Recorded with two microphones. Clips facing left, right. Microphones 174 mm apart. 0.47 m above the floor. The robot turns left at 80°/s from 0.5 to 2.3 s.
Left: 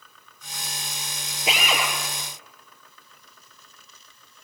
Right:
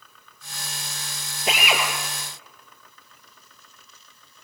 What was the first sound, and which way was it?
A drill, 10° left.